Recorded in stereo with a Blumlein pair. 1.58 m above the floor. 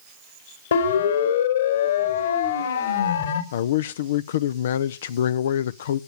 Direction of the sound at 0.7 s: 65° left.